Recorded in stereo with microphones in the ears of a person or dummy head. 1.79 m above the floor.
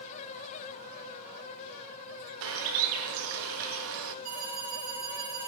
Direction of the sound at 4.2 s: 45° right (ahead or behind).